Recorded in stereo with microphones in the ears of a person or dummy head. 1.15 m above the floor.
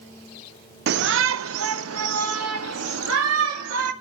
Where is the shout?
55° right (ahead or behind), 0.5 m; by 3.9 s 80° right, 2.5 m.